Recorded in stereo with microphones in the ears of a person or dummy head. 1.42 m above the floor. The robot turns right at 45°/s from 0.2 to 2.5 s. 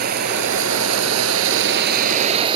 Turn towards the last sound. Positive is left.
turn(degrees=-30)